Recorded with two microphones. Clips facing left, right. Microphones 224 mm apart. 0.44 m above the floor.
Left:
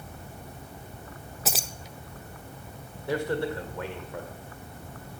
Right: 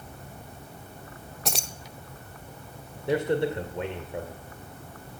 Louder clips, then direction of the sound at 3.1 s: Right 3 dB; 25° right (ahead or behind).